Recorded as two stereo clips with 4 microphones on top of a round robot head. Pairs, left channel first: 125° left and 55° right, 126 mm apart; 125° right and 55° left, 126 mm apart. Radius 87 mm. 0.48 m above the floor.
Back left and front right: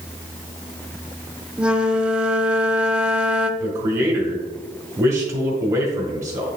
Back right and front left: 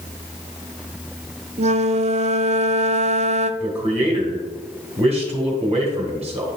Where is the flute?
30° left, 0.6 m.